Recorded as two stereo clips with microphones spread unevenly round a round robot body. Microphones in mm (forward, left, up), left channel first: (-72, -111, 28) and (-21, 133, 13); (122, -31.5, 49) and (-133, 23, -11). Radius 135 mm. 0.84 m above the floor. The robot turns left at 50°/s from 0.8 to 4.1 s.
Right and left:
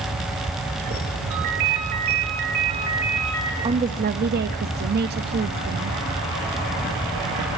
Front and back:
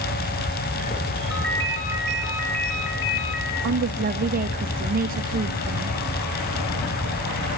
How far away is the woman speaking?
About 1.3 m.